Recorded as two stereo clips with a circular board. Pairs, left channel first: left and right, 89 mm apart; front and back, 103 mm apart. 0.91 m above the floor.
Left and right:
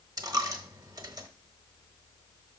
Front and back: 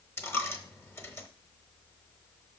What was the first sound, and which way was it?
A dropped coin, 60° right.